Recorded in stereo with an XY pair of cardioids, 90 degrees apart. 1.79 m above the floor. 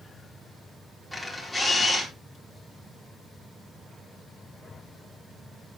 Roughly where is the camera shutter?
Ahead.